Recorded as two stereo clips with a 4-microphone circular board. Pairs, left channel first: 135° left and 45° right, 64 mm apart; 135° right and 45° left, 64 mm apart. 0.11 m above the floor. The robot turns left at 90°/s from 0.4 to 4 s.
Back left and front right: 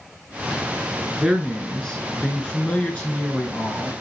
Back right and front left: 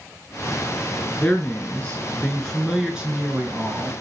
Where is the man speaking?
100° right, 1.1 m; by 3.9 s 20° left, 1.1 m.